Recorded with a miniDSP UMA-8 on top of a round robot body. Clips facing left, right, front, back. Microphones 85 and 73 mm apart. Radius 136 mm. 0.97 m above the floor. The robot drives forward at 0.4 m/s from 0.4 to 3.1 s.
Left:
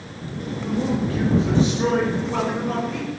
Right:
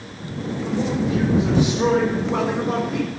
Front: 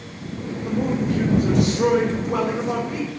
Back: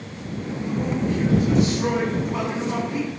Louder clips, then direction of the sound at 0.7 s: Even, front 2 dB; 15° right.